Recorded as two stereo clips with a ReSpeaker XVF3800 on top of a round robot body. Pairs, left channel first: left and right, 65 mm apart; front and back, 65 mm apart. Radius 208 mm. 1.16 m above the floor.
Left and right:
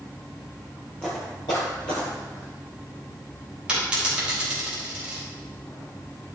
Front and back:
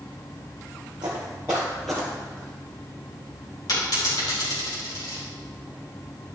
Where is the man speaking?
I don't hear a man speaking.